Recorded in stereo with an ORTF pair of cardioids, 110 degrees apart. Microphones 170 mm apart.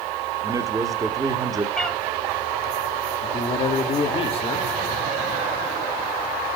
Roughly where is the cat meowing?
Ahead.